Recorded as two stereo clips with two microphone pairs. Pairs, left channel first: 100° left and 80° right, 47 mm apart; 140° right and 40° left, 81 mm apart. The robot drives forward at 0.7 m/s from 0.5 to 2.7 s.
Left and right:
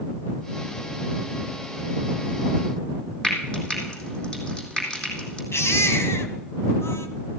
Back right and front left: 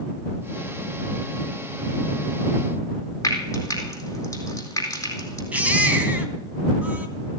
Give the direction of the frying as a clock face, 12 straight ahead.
6 o'clock.